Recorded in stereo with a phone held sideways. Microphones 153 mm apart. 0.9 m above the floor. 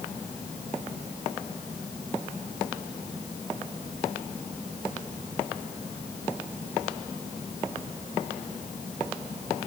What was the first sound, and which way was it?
Only background noise.